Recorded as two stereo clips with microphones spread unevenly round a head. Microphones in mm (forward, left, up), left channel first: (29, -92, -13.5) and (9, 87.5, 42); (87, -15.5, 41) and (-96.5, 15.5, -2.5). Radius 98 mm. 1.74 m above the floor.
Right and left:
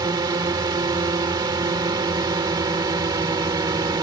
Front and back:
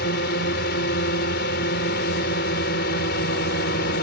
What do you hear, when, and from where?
0.0 s a drone: 30° left